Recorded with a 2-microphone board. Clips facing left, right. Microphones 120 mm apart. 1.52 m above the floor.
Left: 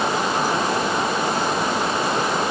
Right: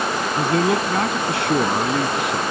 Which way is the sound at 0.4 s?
75° right (ahead or behind).